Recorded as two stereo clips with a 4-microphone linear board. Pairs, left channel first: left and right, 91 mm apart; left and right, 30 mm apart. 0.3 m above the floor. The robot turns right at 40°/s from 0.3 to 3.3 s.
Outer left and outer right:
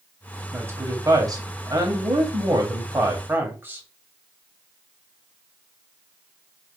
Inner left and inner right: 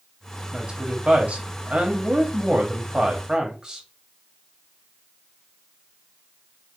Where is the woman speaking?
145° right, 1.5 m; by 3.9 s 35° right, 1.5 m.